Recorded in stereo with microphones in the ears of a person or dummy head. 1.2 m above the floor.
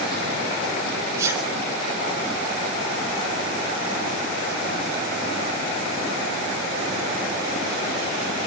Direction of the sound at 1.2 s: 20° right (ahead or behind).